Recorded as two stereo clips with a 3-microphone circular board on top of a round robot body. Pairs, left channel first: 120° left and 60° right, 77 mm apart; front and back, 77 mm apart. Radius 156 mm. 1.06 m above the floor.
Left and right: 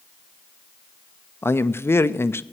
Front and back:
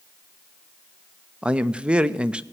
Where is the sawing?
No sawing in this recording.